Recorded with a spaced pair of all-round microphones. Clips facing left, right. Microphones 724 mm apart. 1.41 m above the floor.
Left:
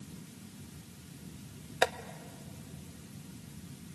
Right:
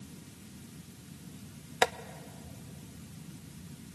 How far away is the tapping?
About 0.6 m.